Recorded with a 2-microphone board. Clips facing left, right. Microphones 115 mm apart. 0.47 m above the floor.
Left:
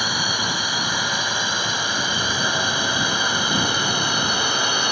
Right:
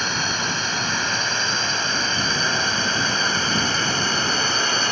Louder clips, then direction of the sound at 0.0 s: Even; 10° left (ahead or behind).